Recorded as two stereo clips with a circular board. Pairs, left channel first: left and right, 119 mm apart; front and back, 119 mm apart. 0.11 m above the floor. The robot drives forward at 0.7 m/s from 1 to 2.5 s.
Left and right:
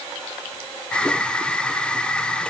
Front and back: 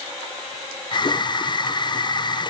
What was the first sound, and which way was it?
Only background noise.